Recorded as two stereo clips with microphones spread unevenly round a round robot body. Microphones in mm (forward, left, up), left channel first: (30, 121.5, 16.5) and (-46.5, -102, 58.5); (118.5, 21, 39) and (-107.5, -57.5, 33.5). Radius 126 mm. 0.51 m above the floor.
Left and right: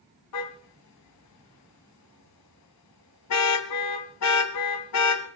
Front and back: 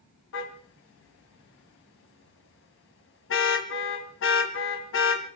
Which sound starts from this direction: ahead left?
A car horn, at 0.3 s.